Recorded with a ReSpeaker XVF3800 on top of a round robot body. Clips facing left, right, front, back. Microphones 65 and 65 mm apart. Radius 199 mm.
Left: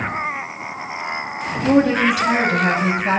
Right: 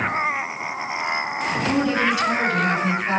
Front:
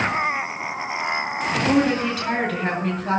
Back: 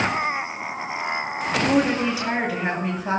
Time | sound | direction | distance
1.6 | a woman speaking | 100° left | 6 m